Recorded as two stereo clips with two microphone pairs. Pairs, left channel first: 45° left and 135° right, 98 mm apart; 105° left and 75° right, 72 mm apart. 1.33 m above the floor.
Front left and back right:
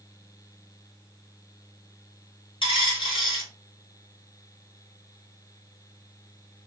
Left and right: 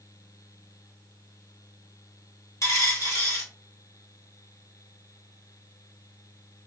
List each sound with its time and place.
2.6 s a dropped coin: 60° left, 1.7 m